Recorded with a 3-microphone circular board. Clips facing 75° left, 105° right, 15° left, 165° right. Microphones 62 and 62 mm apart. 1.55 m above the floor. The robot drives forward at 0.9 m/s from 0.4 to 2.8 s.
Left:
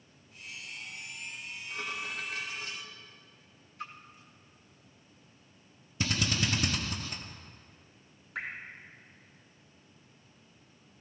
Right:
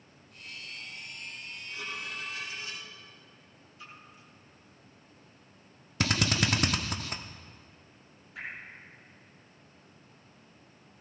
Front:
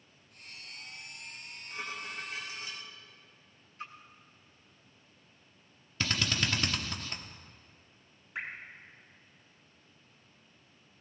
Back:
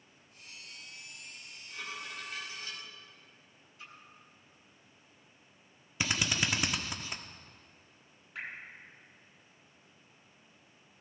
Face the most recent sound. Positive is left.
turn(degrees=85)